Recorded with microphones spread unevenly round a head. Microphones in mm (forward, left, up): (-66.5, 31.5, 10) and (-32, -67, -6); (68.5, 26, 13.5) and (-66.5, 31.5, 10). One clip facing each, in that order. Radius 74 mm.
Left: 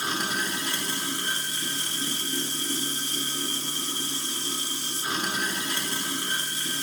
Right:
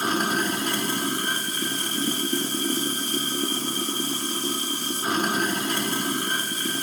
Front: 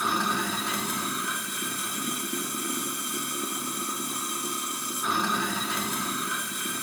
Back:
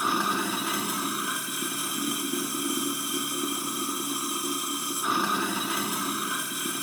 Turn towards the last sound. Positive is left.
turn(degrees=-95)